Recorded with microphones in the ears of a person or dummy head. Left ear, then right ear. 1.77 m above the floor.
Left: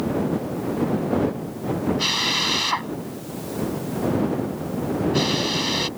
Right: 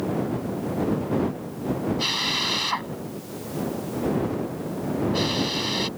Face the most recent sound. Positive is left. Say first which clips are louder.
# left 3 dB
turn(degrees=-5)  # may be behind; listen again after turning